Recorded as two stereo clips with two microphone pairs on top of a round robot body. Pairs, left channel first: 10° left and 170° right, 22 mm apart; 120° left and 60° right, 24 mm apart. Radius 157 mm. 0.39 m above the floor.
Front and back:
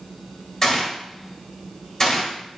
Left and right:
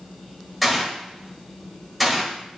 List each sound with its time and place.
0.6 s a gunshot: 30° left, 1.4 m